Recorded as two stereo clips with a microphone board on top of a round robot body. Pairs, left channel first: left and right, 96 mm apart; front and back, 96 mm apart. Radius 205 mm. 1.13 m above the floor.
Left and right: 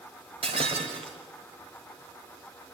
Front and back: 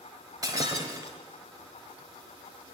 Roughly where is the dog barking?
I don't hear a dog barking.